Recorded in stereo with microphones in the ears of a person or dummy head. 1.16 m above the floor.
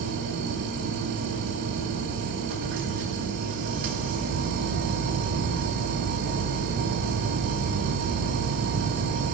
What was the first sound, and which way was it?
A machine running, 55° right (ahead or behind).